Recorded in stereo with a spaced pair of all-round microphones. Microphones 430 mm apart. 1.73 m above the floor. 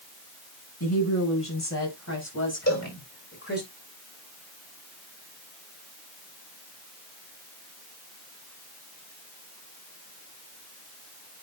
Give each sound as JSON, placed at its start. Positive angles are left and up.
{"t": 0.8, "sound": "a woman speaking", "side_deg": 40, "distance_m": 6.5}
{"t": 2.7, "sound": "a cowbell", "side_deg": 35, "distance_m": 5.0}